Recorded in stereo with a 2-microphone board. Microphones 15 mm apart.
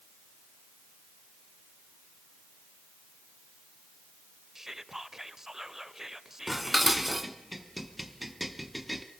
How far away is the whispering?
About 0.9 m.